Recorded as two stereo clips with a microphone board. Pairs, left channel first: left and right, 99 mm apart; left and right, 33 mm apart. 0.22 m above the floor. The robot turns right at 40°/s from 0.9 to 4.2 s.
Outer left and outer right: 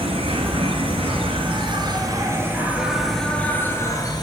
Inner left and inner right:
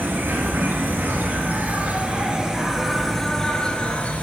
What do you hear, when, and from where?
0.0 s an insect: 85° right, 1.1 m; by 4.2 s 45° left, 1.1 m